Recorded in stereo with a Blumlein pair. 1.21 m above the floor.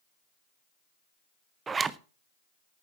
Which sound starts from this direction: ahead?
A zipper, at 1.7 s.